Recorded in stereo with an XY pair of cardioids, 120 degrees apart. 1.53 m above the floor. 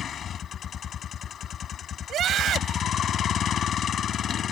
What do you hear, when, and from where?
0.0 s a vehicle: 50° left
2.1 s a scream: 55° right